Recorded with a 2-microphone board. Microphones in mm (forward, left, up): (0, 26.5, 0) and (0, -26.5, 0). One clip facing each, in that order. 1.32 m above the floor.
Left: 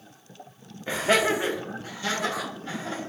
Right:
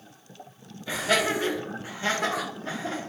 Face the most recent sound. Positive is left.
turn(degrees=-65)  # may be behind; listen again after turning